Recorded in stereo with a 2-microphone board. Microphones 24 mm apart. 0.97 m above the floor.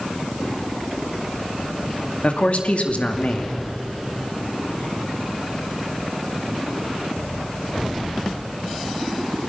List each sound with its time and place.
2.2 s a man speaking: 60° left (ahead or behind), 2 m